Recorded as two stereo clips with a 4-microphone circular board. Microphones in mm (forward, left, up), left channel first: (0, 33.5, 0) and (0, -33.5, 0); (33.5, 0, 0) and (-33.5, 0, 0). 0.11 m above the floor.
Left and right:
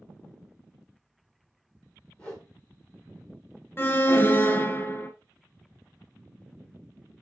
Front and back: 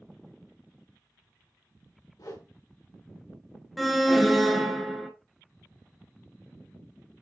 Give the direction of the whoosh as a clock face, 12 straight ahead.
12 o'clock.